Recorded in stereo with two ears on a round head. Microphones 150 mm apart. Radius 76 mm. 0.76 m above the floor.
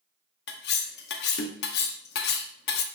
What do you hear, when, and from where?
0.5 s cutlery clinking: 65° left (ahead or behind), 0.5 m